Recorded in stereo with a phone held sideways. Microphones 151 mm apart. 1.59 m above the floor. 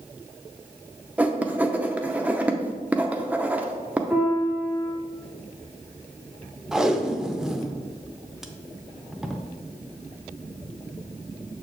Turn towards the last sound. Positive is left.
turn(degrees=-5)  # may be behind; listen again after turning